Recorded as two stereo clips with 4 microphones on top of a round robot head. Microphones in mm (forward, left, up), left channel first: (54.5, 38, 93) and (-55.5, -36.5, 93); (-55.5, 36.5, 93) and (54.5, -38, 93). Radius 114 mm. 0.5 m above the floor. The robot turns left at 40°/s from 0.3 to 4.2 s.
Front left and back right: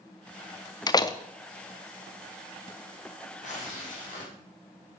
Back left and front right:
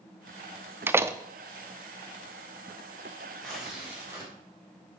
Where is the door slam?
25° left, 0.6 m; by 1.2 s 10° left, 0.6 m.